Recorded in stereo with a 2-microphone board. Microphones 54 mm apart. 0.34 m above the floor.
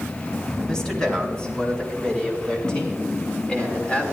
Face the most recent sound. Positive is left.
turn(degrees=20)  # may be behind; listen again after turning